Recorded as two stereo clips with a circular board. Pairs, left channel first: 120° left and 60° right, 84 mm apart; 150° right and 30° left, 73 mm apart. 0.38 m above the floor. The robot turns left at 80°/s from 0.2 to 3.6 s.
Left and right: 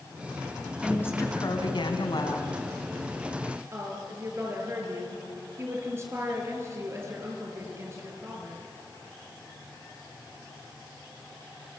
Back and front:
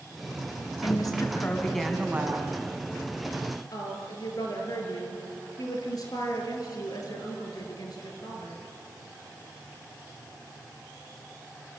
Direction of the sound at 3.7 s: 120° right.